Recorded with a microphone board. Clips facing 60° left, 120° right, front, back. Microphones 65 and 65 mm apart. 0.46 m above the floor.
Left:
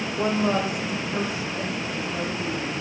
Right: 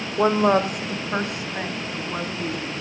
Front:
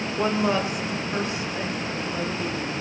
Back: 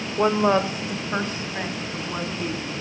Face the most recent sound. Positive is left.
turn(degrees=-135)